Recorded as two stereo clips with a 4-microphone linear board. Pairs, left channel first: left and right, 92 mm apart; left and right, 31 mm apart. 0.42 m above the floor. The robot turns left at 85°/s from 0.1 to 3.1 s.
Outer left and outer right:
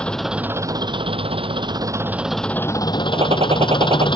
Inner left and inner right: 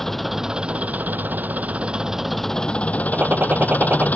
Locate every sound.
0.0 s an engine running: 10° left; by 4.2 s 115° left
3.1 s a gunshot: 85° right